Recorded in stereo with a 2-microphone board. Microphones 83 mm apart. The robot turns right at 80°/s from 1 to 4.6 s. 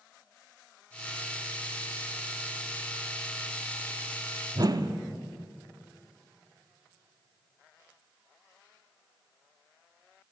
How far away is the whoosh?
About 0.6 m.